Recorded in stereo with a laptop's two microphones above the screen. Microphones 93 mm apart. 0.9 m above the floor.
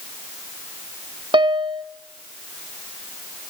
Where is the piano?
60° right (ahead or behind), 1.3 m.